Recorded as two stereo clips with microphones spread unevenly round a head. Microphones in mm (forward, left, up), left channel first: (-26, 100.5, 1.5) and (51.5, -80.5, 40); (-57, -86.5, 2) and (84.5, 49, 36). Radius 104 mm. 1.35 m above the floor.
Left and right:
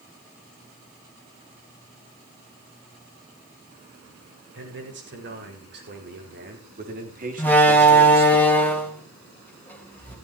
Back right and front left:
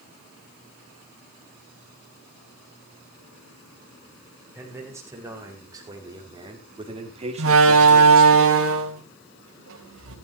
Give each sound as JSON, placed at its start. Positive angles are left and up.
{"t": 4.5, "sound": "a man speaking", "azimuth_deg": -35, "distance_m": 7.5}
{"t": 7.4, "sound": "a door slam", "azimuth_deg": 30, "distance_m": 4.5}